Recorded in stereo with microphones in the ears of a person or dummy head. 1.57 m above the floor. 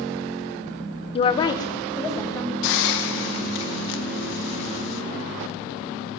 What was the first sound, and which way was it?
A woman speaking, 30° left (ahead or behind).